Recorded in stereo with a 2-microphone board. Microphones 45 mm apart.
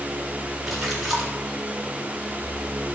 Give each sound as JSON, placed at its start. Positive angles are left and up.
{"t": 0.7, "sound": "a splash", "side_deg": -10, "distance_m": 8.0}